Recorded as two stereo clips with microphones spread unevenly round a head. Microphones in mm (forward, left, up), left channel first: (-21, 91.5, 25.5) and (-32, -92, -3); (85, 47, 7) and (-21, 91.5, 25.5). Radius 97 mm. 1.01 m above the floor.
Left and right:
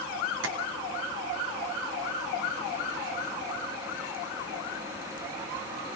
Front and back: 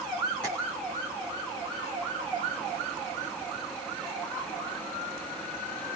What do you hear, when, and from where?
0.4 s tapping: 105° right, 2.5 m